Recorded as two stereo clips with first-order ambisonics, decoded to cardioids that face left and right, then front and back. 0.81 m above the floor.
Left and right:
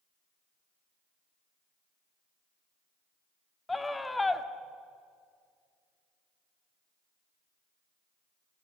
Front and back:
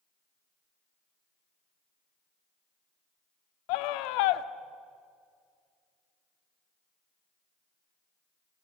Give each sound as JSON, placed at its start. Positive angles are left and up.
{"t": 3.7, "sound": "a scream", "azimuth_deg": 10, "distance_m": 1.3}